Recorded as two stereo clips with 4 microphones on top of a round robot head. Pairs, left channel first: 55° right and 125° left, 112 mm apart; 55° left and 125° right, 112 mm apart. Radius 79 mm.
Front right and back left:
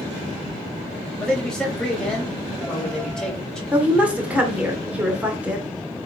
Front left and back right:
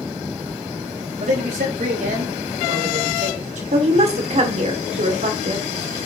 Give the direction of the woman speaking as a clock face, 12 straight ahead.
5 o'clock.